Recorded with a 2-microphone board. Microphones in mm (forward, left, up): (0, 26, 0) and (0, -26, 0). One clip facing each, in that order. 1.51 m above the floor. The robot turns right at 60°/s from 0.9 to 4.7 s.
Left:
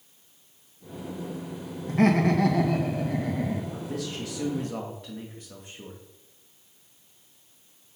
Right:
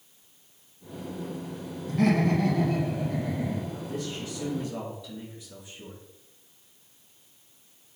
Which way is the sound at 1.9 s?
35° left.